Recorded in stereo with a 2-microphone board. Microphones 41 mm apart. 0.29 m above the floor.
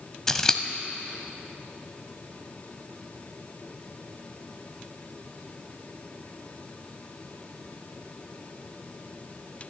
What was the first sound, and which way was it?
Scissors, 15° left (ahead or behind).